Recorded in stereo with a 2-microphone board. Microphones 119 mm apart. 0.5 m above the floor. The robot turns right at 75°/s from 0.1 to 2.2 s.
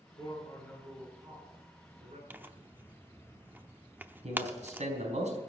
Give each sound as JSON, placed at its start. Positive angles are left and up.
{"t": 0.2, "sound": "a man speaking", "azimuth_deg": 135, "distance_m": 5.5}
{"t": 2.3, "sound": "tearing paper", "side_deg": -15, "distance_m": 0.7}
{"t": 4.2, "sound": "a man speaking", "side_deg": -75, "distance_m": 4.5}